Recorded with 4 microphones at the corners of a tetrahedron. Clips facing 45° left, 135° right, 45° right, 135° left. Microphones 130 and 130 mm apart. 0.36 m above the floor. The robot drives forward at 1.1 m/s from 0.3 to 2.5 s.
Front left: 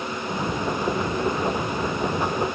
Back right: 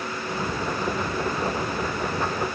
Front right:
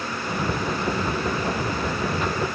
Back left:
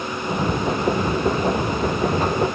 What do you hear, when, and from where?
Only background noise.